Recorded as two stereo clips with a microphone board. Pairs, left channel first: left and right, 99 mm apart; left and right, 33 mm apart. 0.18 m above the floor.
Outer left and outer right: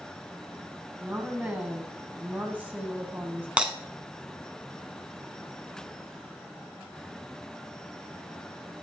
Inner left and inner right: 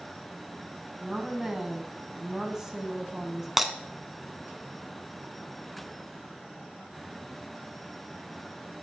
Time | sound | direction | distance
1.0 | a woman speaking | 15° right (ahead or behind) | 1.3 m
3.6 | breaking glass | 10° right (ahead or behind) | 0.9 m